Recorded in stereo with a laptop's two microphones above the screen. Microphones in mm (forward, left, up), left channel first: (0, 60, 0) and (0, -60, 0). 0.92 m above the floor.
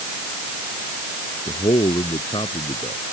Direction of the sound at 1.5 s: 45° left (ahead or behind).